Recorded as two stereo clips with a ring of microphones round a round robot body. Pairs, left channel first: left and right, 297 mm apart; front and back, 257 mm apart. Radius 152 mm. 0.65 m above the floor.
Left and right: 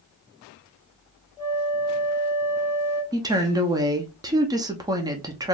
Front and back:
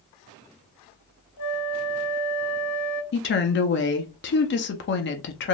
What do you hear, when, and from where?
1.4 s a flute: 10° left, 0.9 m
3.1 s a woman speaking: 15° right, 0.7 m